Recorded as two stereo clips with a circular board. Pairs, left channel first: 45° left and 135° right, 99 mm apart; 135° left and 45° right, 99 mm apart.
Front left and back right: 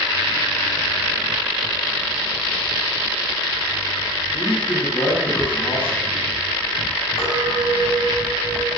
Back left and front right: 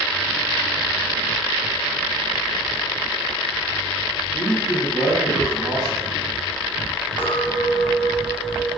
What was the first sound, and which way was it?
A man speaking, 15° left.